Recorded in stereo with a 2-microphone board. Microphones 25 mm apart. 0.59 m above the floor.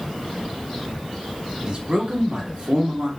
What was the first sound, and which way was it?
A man speaking, 35° right (ahead or behind).